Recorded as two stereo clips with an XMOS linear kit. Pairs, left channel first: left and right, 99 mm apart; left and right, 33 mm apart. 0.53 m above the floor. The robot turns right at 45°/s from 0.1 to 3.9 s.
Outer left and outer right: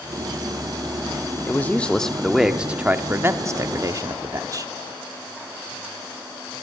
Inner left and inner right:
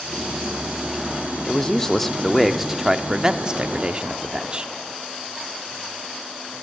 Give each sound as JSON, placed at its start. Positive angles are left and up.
{"t": 1.5, "sound": "a man speaking", "azimuth_deg": 145, "distance_m": 0.8}